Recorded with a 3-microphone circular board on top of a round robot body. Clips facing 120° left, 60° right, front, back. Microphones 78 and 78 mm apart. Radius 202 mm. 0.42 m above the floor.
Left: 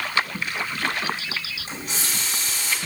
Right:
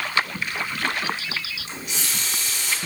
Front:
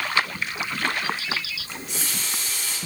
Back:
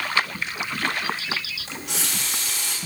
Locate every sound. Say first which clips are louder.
1.7 s a running tap: left 3 dB, back 2 dB; 175° left, 2.5 m